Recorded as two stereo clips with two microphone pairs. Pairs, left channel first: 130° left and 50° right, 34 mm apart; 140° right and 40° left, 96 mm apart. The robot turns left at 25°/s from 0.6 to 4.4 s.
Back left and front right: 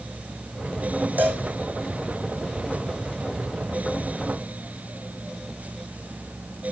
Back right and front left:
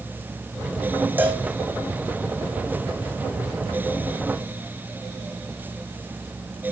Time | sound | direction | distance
1.2 | a cowbell | 30° right | 3 m